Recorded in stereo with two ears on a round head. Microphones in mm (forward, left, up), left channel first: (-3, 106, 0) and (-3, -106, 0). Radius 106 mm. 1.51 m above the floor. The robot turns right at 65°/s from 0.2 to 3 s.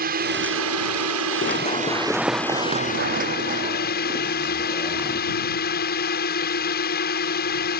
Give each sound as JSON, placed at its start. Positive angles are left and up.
{"t": 0.0, "sound": "a drone", "azimuth_deg": -140}
{"t": 1.4, "sound": "running footsteps", "side_deg": 40}